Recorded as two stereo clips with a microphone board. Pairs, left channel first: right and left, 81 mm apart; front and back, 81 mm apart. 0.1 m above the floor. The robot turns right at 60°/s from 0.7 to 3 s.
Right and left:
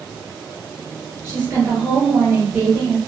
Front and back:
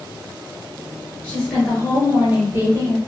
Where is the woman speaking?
50° left, 1.9 m; by 3.0 s 155° left, 1.9 m.